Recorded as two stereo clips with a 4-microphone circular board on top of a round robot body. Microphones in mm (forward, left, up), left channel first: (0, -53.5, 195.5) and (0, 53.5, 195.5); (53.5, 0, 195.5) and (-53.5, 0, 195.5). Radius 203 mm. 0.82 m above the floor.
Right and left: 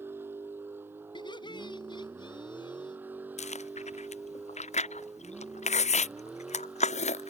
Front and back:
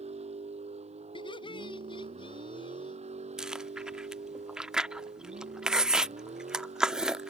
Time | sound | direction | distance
0.0 | a vehicle | 160° left | ?
1.1 | laughter | 45° right | ?
3.4 | chewing | 95° right | ?